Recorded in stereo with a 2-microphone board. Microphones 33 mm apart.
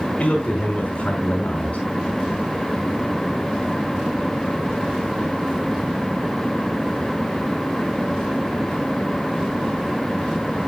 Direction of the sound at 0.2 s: 30° left (ahead or behind).